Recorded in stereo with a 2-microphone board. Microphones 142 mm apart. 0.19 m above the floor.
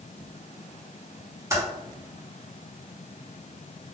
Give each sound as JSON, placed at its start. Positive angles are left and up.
{"t": 1.5, "sound": "typing on a keyboard", "side_deg": -20, "distance_m": 1.4}